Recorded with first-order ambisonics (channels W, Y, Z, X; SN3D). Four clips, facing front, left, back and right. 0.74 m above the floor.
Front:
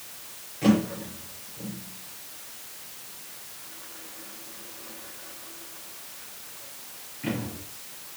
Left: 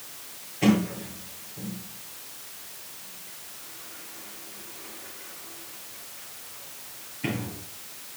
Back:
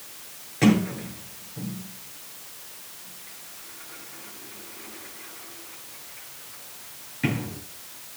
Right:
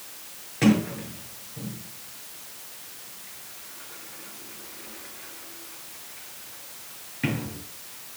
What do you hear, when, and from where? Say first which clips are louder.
0.6 s a sliding door: right 1 dB, back 2 dB; 135° right, 8.5 m